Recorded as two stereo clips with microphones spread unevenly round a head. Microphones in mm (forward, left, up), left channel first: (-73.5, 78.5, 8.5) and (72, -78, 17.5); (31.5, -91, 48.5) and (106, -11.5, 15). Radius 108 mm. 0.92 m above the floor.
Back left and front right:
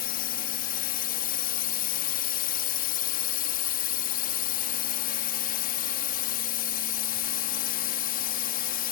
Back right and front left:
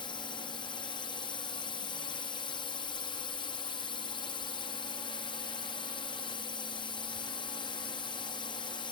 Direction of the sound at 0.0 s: 170° left.